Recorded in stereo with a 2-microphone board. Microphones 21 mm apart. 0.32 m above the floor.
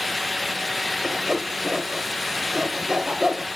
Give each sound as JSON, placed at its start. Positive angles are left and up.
{"t": 1.0, "sound": "sawing", "side_deg": -30, "distance_m": 1.2}